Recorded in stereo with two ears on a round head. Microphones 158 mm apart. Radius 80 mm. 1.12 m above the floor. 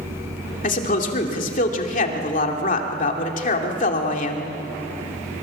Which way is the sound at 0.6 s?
50° left (ahead or behind).